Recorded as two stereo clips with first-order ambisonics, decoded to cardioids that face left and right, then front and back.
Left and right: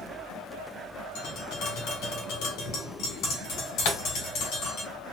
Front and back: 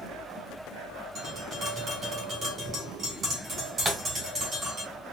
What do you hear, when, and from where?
1.1 s tapping: 120° left, 2.0 m
3.9 s a pop: 110° left, 1.9 m